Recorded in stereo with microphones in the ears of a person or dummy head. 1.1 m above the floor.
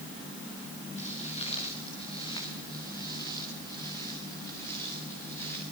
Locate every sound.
1.0 s footsteps: 40° left (ahead or behind), 6.5 m; by 5.6 s 10° left (ahead or behind), 10.5 m